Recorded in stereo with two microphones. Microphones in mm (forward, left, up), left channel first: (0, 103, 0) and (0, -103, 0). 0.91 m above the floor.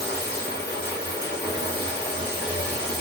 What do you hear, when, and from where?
0.0 s running water: 55° left (ahead or behind), 1.2 m